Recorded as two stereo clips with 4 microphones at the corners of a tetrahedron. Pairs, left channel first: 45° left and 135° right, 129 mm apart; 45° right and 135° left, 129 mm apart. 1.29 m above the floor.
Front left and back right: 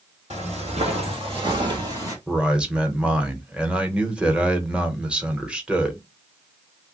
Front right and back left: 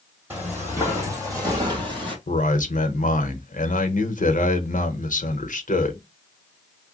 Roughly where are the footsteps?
Behind right.